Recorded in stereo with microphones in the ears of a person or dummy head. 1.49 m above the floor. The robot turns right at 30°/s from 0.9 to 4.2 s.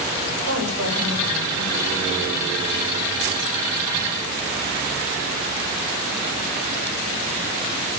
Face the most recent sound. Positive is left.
turn(degrees=0)